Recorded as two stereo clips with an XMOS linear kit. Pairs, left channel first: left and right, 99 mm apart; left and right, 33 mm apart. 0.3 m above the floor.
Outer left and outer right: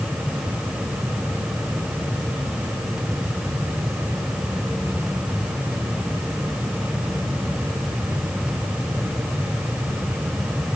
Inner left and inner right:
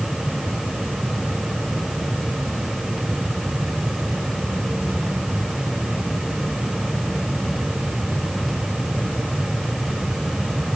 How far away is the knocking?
I don't hear knocking.